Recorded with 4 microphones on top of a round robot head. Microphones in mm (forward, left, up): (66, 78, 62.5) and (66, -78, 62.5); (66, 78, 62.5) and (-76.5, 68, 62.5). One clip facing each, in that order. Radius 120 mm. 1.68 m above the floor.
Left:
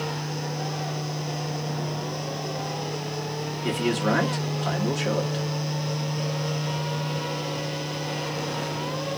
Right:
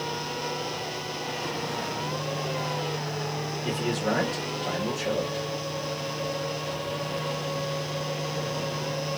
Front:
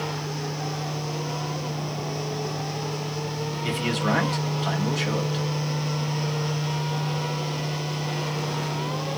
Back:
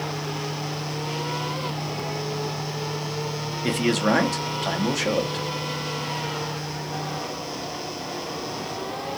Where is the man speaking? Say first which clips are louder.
Left 4 dB, back 5 dB; 140° left, 1.0 m.